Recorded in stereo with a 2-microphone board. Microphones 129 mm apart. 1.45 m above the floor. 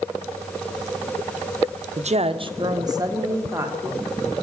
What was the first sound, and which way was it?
A woman speaking, 65° right (ahead or behind).